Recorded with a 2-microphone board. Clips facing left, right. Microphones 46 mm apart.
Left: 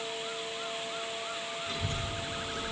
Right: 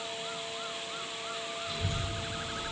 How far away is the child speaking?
About 3 m.